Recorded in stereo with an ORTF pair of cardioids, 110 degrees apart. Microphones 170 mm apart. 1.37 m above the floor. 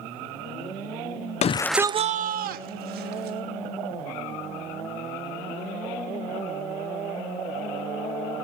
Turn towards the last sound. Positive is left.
turn(degrees=-80)